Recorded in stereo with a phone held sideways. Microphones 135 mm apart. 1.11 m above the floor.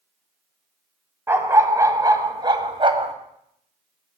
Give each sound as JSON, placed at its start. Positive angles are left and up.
{"t": 1.3, "sound": "a dog barking", "side_deg": -15, "distance_m": 2.0}